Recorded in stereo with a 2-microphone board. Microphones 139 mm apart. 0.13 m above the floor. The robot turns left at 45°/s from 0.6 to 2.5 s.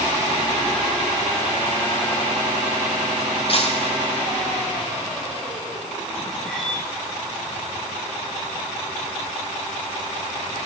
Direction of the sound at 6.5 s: 5° left (ahead or behind).